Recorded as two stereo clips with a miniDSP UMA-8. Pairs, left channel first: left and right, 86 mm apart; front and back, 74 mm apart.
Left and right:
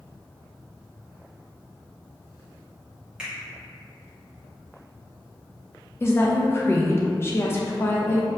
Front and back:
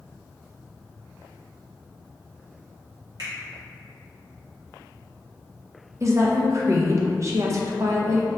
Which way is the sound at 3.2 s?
170° right.